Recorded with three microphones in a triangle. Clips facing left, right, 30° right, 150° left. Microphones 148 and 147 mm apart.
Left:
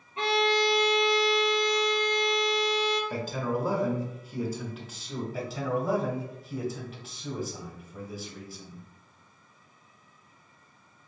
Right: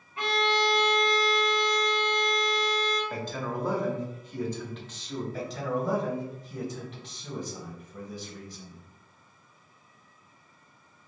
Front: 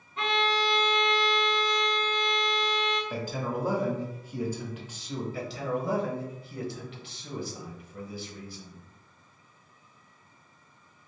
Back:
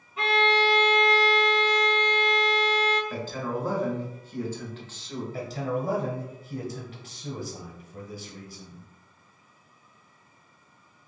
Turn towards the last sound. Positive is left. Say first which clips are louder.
# left 1 dB, back 3 dB
turn(degrees=175)